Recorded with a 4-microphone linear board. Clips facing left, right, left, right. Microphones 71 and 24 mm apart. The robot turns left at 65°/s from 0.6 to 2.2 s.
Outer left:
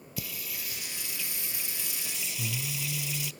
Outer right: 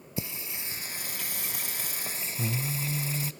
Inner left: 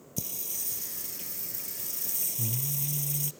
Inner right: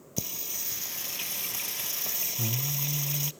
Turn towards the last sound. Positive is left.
turn(degrees=-135)